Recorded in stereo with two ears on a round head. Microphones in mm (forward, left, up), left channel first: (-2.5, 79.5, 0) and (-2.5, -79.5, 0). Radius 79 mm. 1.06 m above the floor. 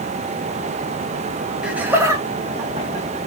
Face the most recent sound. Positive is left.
turn(degrees=-30)  # may be behind; listen again after turning